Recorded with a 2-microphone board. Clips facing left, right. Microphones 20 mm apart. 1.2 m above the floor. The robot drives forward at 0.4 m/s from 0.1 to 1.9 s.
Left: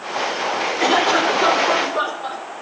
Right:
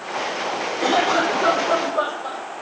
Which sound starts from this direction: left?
A cough, at 0.8 s.